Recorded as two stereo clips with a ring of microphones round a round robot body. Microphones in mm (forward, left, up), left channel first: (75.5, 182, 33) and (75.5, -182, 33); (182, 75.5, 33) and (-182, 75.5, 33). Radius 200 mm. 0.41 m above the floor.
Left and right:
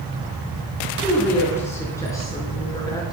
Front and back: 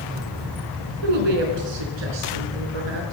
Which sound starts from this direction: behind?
A woman speaking, at 1.0 s.